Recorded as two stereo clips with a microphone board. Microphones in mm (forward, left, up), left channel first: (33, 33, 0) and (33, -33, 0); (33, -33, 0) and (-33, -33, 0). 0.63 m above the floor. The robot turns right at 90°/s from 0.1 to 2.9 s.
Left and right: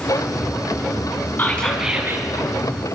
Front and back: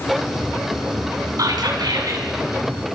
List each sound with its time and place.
1.4 s whispering: 150° left, 4.5 m; by 2.2 s 135° right, 4.5 m